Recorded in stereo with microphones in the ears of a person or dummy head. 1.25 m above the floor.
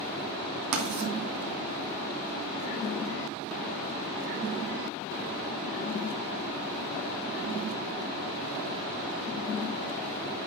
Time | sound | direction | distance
0.7 | writing | 65° right (ahead or behind) | 2.5 m